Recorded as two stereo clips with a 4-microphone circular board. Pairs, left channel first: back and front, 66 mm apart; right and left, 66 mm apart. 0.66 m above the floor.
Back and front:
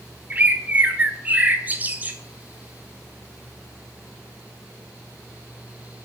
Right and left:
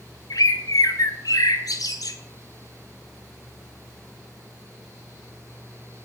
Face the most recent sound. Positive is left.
turn(degrees=-65)